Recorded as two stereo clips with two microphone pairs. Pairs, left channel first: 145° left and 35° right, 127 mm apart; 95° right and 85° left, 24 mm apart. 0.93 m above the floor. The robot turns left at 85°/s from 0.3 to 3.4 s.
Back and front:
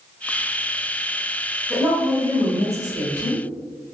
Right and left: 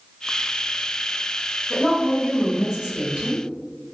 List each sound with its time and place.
1.7 s a woman speaking: 130° right, 1.7 m; by 3.4 s 85° left, 1.7 m